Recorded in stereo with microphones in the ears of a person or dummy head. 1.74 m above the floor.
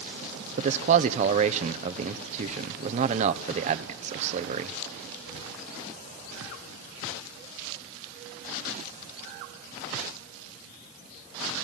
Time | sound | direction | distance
0.6 | a man speaking | 40° right (ahead or behind) | 1.2 m